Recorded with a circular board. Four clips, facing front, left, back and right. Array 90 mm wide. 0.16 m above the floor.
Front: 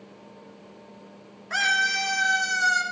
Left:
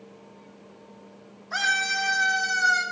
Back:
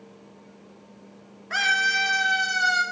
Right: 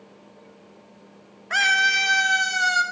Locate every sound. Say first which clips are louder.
1.5 s a scream: right 5 dB, back 1 dB; 95° right, 3 m; by 2.8 s 105° right, 4.5 m